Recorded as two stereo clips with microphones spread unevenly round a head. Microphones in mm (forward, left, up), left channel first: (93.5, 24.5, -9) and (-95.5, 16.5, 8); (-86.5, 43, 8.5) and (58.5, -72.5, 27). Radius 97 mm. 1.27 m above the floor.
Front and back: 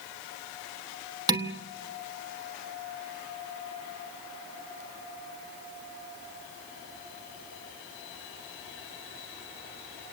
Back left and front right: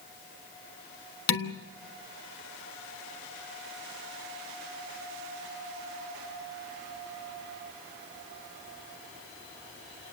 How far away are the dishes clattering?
About 1.4 m.